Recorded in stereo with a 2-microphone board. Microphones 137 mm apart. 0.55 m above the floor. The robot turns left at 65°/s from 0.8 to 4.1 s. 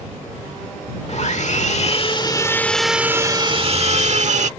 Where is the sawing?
115° left; by 4.5 s 80° right.